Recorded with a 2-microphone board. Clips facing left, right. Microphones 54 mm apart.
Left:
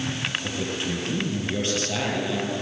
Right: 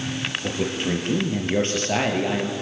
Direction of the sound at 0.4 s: 35° right (ahead or behind).